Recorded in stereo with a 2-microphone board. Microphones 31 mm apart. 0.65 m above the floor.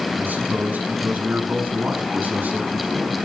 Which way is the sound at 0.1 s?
75° right (ahead or behind).